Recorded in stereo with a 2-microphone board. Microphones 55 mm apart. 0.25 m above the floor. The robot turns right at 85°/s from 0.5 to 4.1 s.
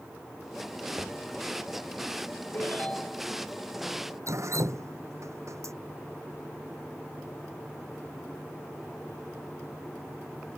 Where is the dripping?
70° right (ahead or behind).